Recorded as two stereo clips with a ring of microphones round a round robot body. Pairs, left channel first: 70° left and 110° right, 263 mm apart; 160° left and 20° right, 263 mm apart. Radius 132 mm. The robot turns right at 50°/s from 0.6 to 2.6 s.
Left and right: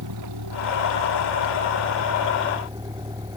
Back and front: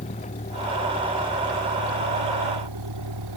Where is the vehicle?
135° right; by 3.4 s 35° right.